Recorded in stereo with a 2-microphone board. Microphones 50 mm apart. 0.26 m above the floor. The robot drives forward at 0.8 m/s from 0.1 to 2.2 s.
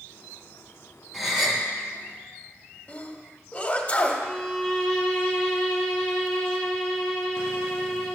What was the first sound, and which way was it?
A gasp, 5° right (ahead or behind).